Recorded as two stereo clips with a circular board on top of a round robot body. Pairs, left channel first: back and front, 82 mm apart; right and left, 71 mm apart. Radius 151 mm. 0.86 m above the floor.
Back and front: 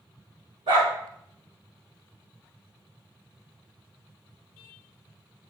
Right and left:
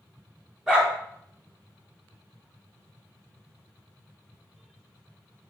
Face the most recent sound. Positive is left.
turn(degrees=10)